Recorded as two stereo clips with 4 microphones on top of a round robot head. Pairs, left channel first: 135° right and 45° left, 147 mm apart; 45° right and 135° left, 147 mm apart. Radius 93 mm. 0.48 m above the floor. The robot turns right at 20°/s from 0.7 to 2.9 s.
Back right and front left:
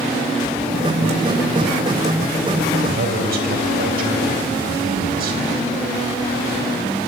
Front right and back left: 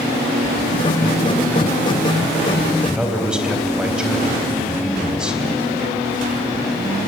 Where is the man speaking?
50° left, 4 m.